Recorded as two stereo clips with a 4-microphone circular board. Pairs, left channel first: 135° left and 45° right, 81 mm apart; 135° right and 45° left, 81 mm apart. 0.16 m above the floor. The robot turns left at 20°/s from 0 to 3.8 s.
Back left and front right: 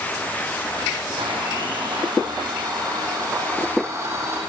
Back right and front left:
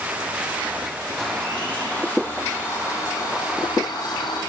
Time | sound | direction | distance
1.2 | a blender | 50° right | 5 m